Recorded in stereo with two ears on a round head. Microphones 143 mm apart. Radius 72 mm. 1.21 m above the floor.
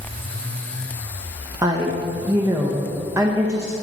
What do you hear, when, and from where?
1.6 s a woman speaking: 20° right (ahead or behind), 0.9 m